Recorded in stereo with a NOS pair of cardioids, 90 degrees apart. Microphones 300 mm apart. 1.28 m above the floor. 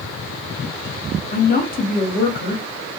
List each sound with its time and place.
1.3 s a woman speaking: 30° left, 1.2 m